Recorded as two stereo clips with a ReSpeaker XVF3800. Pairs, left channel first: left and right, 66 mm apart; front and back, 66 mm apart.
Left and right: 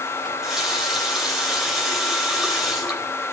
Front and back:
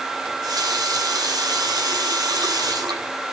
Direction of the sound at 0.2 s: 175° right.